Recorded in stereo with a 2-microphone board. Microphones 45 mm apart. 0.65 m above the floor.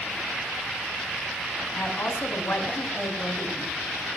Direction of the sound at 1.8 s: 65° left (ahead or behind).